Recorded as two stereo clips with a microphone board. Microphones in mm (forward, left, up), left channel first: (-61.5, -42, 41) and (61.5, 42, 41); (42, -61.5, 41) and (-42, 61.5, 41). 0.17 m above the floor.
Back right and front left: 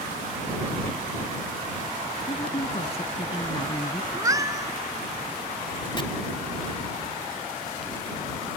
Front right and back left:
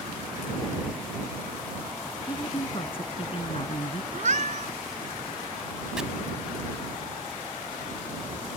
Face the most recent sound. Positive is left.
turn(degrees=-155)